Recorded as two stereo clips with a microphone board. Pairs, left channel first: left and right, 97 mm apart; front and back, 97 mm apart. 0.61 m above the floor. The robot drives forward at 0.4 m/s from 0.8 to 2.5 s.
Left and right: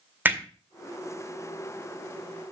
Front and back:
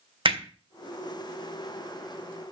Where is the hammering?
160° right, 1.7 m.